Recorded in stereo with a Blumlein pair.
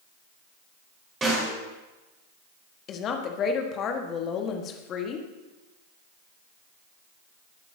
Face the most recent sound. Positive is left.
turn(degrees=30)